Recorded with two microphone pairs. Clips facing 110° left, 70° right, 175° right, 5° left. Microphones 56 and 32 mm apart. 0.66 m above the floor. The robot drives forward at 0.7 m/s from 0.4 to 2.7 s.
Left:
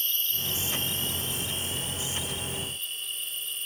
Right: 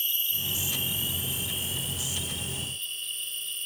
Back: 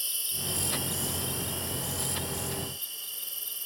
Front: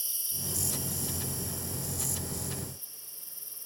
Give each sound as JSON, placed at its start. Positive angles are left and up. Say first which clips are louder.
{"t": 0.0, "sound": "an insect", "louder": "even, back 5 dB", "azimuth_deg": -145}